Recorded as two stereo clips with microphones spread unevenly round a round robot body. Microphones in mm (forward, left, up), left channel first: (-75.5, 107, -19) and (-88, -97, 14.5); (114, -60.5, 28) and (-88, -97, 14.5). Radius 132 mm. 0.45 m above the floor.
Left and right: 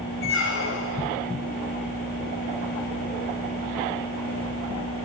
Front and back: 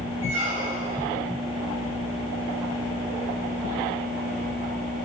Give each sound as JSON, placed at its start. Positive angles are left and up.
{"t": 0.2, "sound": "a squeak", "azimuth_deg": 110, "distance_m": 1.4}